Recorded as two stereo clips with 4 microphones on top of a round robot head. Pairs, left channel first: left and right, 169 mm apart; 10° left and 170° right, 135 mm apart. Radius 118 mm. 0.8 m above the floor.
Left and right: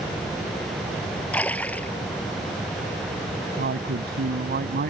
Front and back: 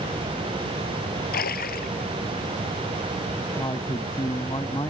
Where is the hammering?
No hammering in this recording.